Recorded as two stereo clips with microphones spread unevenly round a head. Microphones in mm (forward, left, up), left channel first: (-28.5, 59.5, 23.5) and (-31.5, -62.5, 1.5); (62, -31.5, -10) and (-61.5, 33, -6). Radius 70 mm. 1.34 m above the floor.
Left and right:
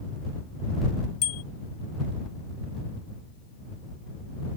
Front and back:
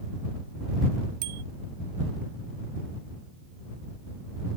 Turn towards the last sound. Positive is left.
turn(degrees=120)